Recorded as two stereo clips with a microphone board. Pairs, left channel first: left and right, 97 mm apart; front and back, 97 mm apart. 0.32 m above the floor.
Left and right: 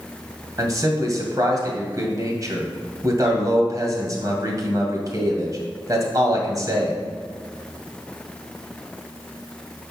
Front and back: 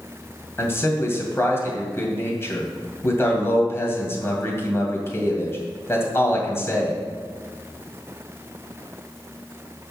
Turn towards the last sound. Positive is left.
turn(degrees=-55)